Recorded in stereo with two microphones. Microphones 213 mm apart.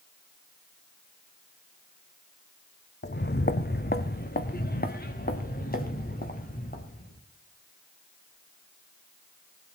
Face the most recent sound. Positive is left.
turn(degrees=40)  # may be behind; listen again after turning